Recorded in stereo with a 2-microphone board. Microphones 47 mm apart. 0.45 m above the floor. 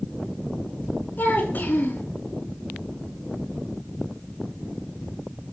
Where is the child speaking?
45° left (ahead or behind), 4 m.